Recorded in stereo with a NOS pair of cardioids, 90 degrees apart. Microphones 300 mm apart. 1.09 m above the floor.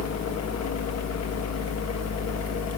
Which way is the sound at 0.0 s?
60° left.